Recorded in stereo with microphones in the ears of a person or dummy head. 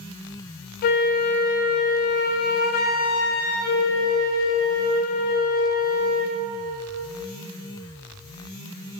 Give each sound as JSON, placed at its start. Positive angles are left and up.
{"t": 0.8, "sound": "a flute", "side_deg": 50, "distance_m": 0.7}